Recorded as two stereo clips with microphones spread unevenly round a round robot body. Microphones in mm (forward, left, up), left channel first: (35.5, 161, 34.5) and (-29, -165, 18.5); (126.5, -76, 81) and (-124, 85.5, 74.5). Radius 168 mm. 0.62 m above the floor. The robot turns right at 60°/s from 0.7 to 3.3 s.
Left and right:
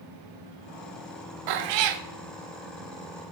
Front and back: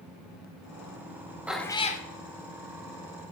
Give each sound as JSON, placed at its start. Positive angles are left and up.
{"t": 1.5, "sound": "a cat meowing", "azimuth_deg": -125, "distance_m": 0.7}